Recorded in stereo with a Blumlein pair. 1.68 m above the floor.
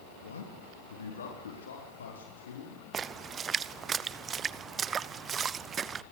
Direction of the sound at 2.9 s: 20° right.